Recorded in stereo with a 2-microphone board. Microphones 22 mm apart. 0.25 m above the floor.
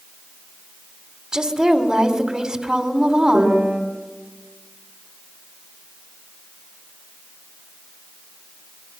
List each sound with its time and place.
1.3 s a woman speaking: 30° right (ahead or behind), 1.9 m
3.3 s a piano: 75° right (ahead or behind), 8.5 m